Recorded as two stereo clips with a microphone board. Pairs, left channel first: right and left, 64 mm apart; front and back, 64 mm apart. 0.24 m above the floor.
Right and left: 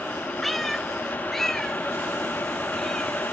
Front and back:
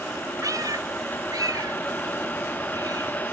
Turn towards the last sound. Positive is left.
turn(degrees=-175)